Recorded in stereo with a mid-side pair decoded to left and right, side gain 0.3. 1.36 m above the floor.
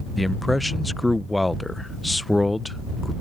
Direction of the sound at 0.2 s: 20° left.